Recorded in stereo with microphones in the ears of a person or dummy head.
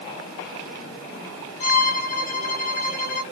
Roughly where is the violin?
Left.